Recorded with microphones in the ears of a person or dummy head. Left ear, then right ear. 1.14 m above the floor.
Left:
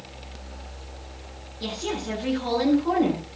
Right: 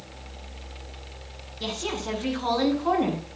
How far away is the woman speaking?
About 9 m.